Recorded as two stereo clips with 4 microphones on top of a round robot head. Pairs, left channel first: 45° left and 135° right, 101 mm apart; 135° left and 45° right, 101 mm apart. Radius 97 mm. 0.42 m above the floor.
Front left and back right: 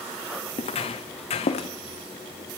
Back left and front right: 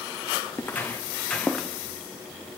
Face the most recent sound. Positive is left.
turn(degrees=50)